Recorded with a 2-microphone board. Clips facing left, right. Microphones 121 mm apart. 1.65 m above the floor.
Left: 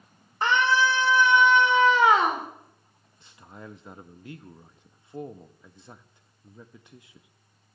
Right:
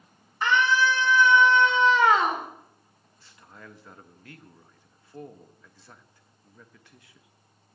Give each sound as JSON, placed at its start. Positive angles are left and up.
{"t": 0.4, "sound": "a scream", "side_deg": 40, "distance_m": 1.9}
{"t": 3.2, "sound": "a man speaking", "side_deg": 20, "distance_m": 0.6}